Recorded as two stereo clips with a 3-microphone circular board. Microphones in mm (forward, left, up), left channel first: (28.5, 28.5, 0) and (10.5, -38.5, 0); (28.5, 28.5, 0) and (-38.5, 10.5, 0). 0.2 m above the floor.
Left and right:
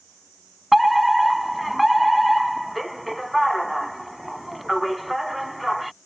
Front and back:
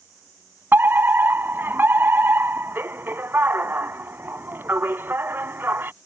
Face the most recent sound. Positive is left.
turn(degrees=165)